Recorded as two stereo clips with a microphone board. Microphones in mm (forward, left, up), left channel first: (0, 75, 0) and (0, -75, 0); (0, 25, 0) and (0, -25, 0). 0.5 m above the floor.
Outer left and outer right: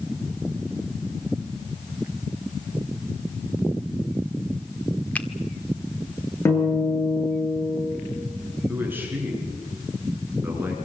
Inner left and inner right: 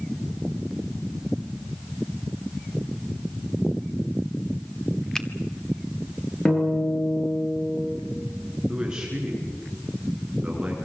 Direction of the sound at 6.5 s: 15° left (ahead or behind).